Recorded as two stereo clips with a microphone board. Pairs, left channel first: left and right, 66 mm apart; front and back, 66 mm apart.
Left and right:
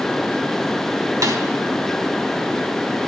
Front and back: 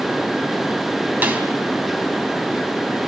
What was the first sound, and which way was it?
A snare drum, 115° right.